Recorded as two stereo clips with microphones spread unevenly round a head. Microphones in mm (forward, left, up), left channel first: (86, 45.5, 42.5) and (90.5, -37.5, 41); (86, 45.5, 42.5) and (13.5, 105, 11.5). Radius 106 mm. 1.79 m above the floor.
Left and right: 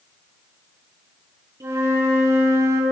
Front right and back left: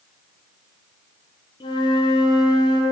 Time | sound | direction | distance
1.6 | a flute | 30° right | 1.1 m